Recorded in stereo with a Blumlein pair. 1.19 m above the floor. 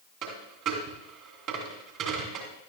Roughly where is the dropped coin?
Ahead right.